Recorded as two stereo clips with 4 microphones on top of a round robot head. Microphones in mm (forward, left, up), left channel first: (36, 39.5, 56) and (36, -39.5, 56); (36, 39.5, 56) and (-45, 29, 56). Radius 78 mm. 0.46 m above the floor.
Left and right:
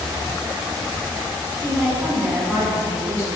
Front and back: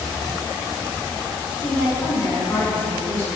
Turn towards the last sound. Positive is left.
turn(degrees=-50)